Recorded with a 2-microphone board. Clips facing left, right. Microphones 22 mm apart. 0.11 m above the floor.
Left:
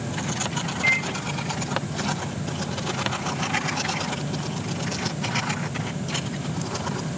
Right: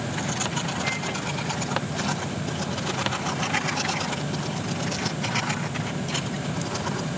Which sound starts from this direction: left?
A microwave, at 0.8 s.